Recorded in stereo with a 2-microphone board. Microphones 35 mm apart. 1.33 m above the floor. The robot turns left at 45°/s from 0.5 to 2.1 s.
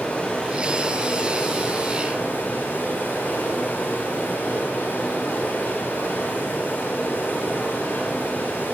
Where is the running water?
150° left, 7.5 m; by 8.7 s 80° left, 7.5 m.